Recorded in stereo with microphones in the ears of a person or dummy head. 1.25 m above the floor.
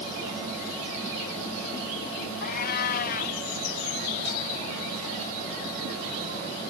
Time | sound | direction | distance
2.4 | a cat meowing | 45° left (ahead or behind) | ?